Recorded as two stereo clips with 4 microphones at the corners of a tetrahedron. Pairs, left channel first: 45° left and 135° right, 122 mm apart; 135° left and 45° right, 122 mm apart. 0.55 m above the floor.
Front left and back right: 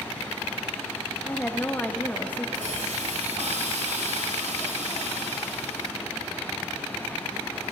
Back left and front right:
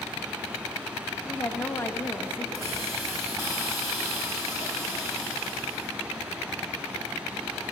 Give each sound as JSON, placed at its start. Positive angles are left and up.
{"t": 1.2, "sound": "a woman speaking", "azimuth_deg": 100, "distance_m": 0.6}
{"t": 2.5, "sound": "a hiss", "azimuth_deg": -115, "distance_m": 2.5}